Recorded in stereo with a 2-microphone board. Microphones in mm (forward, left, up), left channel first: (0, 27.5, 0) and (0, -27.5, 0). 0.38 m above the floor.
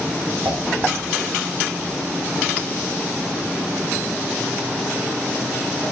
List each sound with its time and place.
0.5 s dishes clattering: 65° right (ahead or behind), 3.5 m